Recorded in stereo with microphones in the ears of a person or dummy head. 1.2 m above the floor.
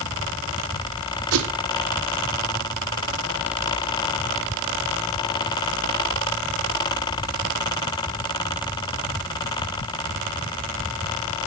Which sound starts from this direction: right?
A whoosh, at 1.3 s.